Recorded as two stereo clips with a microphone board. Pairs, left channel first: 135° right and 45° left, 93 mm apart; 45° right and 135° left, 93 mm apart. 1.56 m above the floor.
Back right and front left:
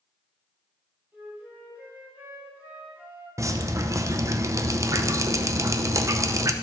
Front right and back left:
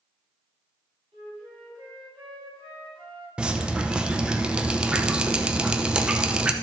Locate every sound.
1.1 s a flute: 115° left, 5 m
3.4 s dripping: 65° left, 0.6 m